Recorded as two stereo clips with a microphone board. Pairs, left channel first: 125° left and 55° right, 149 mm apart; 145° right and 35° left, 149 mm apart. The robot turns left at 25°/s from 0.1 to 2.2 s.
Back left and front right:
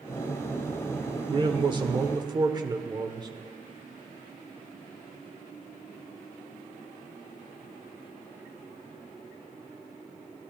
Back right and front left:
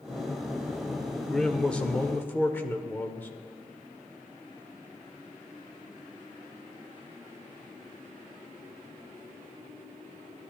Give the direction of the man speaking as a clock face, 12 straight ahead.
2 o'clock.